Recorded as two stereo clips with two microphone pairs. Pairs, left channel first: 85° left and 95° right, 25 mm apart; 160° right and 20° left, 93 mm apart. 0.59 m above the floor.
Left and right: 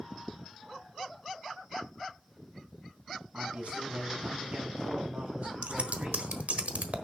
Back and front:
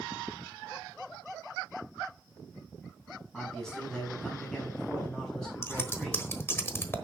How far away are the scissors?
About 1.2 m.